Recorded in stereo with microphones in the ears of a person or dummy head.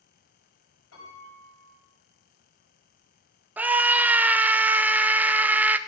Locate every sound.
0.9 s a piano: 85° left, 7.5 m
3.6 s a scream: 10° right (ahead or behind), 0.7 m